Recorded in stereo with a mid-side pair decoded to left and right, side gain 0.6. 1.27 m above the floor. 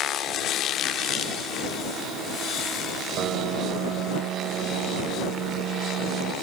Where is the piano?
55° right.